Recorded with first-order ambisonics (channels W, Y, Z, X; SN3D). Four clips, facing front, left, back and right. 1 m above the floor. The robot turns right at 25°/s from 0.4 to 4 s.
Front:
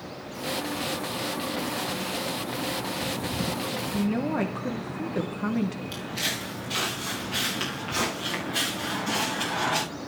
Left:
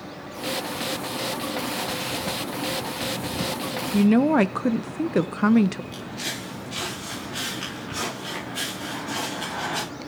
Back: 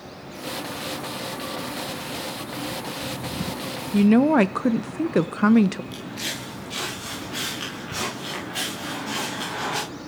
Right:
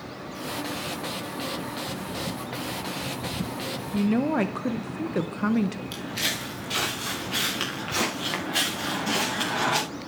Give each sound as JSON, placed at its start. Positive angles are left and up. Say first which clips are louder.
{"t": 3.9, "sound": "a woman speaking", "louder": "left 6 dB, back 12 dB", "azimuth_deg": 150, "distance_m": 0.5}
{"t": 5.9, "sound": "footsteps", "louder": "right 3 dB, front 1 dB", "azimuth_deg": -75, "distance_m": 7.0}